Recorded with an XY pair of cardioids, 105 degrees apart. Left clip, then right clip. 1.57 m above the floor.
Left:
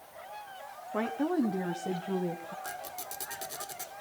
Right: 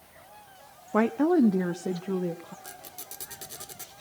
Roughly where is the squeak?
Ahead.